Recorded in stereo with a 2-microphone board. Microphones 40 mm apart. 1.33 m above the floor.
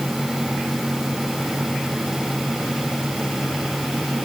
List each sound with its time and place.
Only background noise.